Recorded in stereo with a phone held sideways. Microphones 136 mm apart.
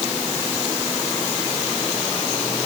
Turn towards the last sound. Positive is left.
No sound to turn to.